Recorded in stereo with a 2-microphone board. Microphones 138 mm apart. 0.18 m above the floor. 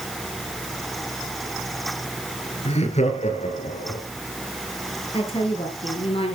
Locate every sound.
2.6 s laughter: 50° left (ahead or behind), 2.5 m; by 4.0 s 65° left (ahead or behind), 3 m
5.1 s a woman speaking: 40° left (ahead or behind), 4 m